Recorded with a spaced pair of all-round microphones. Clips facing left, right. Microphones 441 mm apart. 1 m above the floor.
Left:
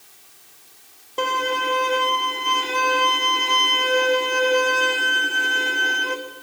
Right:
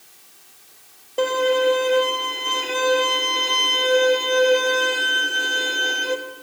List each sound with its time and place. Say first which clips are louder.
1.2 s a violin: right 8 dB; 20° left (ahead or behind), 0.8 m